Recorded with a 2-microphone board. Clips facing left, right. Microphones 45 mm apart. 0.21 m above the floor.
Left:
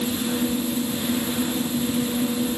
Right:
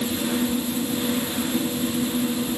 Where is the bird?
I don't hear a bird.